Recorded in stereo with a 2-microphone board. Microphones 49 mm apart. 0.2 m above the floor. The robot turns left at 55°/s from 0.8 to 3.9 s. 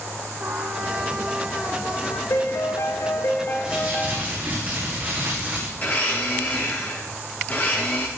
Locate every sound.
0.4 s a trumpet: 135° right, 2.5 m; by 2.2 s 145° left, 2.5 m
2.3 s a piano: 105° left, 5 m; by 4.2 s 20° left, 5 m
3.6 s crumpling: 15° right (ahead or behind), 8 m; by 5.7 s 30° right (ahead or behind), 8 m
5.8 s a blender: 30° left (ahead or behind), 8 m